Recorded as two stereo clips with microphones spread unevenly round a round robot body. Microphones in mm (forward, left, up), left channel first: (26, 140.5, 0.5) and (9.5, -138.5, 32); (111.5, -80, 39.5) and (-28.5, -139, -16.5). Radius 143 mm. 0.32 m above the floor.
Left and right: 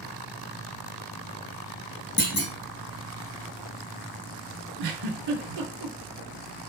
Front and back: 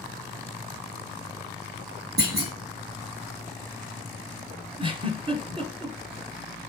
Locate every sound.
2.2 s a clunk: 150° left, 1.4 m
4.8 s a giggle: 95° right, 1.0 m